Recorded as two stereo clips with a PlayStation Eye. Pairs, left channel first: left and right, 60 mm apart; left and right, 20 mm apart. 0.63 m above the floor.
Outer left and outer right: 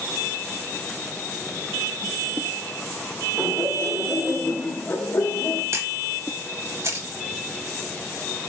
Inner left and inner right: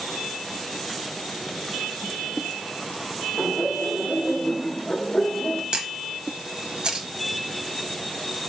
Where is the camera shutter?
50° right (ahead or behind), 0.8 m.